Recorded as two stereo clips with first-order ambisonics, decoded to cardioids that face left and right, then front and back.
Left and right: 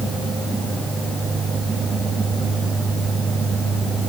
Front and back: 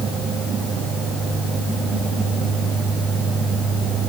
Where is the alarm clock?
No alarm clock in this recording.